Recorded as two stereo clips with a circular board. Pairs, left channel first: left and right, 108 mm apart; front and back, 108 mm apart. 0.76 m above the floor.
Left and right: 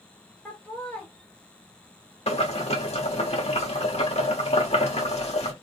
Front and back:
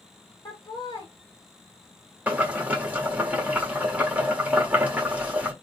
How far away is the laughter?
About 1.3 m.